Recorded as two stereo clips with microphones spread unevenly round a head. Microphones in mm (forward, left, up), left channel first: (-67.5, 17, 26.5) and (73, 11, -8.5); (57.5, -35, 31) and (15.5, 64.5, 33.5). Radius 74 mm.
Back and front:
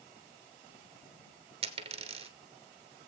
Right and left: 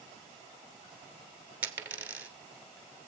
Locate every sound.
1.6 s a dropped coin: 45° left, 1.4 m